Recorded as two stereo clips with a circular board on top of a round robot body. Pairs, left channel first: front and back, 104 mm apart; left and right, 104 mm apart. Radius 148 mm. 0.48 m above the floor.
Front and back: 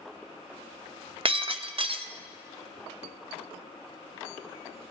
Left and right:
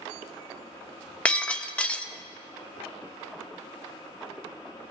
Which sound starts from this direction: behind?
Breaking glass, at 1.2 s.